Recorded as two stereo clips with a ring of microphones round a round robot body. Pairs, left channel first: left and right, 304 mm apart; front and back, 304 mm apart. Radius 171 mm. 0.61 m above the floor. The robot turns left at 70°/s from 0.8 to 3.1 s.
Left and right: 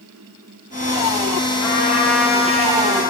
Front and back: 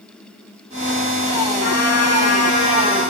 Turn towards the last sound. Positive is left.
turn(degrees=-65)